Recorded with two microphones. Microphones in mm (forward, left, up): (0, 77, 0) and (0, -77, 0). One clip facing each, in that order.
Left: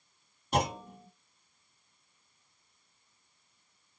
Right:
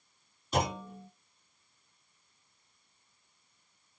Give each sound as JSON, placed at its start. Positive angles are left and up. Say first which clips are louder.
{"t": 0.5, "sound": "a clunk", "louder": "left 1 dB", "side_deg": 60, "distance_m": 2.5}